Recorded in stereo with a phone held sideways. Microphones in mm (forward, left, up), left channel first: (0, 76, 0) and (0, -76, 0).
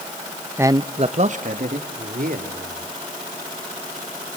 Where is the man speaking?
15° right (ahead or behind), 0.6 m; by 2.9 s 70° right (ahead or behind), 3 m.